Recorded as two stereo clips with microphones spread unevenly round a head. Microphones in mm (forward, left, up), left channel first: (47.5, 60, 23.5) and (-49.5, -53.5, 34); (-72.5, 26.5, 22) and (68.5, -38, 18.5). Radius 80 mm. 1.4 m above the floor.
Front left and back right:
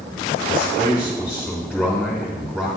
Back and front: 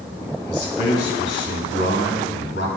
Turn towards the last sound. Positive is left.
turn(degrees=145)